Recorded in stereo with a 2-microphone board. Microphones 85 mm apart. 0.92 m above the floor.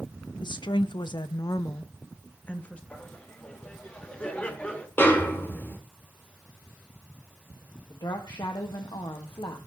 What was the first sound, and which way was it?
A woman speaking, 65° left (ahead or behind).